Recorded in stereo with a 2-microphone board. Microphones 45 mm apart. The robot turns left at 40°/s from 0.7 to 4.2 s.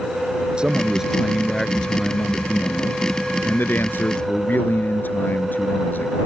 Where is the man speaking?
155° right; by 6.2 s 65° left.